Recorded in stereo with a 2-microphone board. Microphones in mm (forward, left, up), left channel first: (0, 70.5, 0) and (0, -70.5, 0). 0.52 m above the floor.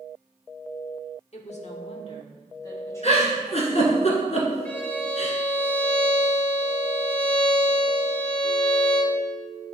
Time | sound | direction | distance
1.3 | a woman speaking | 50° left (ahead or behind) | 1.2 m
3.0 | a giggle | 50° left (ahead or behind) | 1.7 m
4.7 | a violin | 10° left (ahead or behind) | 1.0 m